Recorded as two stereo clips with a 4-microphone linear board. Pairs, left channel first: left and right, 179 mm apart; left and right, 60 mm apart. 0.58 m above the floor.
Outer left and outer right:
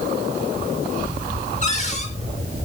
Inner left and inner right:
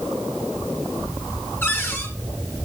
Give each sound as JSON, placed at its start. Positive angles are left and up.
{"t": 1.6, "sound": "a cupboard door", "side_deg": 40, "distance_m": 6.0}